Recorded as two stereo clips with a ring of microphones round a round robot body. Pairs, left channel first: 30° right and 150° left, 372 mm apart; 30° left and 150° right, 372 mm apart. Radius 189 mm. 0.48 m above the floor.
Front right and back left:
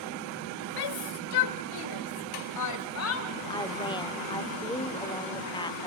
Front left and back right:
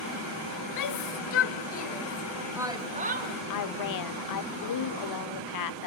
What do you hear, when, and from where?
0.8 s a shout: 5° right, 2 m; by 3.4 s 90° right, 2 m
3.5 s a woman speaking: 45° left, 1.3 m